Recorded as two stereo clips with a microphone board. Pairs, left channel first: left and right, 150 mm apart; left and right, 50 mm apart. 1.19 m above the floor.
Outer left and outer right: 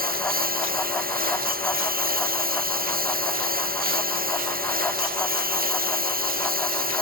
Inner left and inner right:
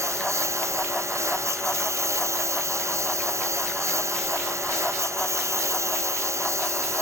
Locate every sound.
0.0 s a lawn mower: 80° right